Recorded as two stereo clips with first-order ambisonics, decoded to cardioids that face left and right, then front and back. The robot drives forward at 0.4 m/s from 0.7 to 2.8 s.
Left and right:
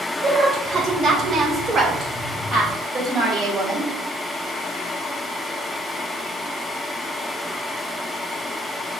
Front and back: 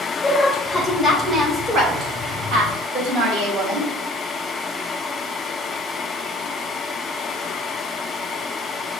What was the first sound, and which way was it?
A woman speaking, 65° right.